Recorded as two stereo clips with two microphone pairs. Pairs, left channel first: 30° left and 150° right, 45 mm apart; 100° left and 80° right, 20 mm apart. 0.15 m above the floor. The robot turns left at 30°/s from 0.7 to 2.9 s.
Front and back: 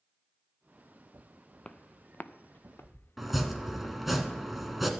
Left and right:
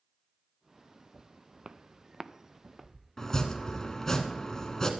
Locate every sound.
1.6 s footsteps: 40° right, 0.7 m; by 4.0 s 15° left, 1.6 m
3.2 s chopping: 130° left, 1.5 m